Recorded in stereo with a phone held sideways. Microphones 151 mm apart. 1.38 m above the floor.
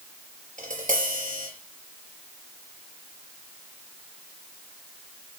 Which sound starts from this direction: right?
Tapping, at 0.6 s.